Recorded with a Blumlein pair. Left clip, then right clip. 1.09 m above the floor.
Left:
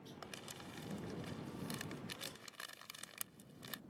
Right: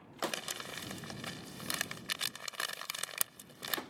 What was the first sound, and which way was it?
Crumpling, 60° right.